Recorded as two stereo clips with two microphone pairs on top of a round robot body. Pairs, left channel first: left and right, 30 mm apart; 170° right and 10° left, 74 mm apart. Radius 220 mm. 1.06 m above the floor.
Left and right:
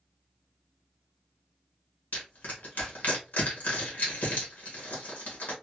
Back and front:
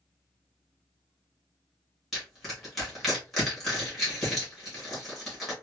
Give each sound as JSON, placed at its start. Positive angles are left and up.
{"t": 2.1, "sound": "crushing", "azimuth_deg": 95, "distance_m": 1.2}